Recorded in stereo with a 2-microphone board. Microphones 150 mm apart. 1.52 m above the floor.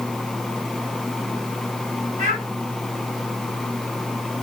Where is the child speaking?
55° right (ahead or behind), 6.5 m.